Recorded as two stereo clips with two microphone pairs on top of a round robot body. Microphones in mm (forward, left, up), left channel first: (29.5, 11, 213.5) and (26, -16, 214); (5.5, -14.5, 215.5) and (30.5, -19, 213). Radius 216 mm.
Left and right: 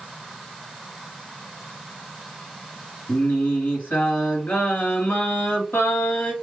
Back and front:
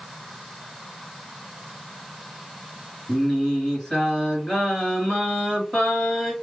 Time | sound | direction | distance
3.1 | singing | 100° left | 1.6 m